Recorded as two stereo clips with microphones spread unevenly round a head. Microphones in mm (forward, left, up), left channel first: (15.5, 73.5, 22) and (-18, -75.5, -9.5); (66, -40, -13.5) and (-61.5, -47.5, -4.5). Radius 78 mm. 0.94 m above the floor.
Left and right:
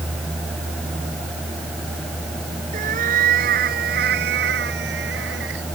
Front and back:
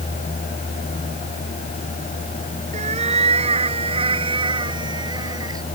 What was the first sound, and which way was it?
A cat meowing, 145° right.